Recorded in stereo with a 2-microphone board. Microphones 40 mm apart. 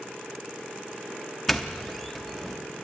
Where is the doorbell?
5° left (ahead or behind), 1.0 m.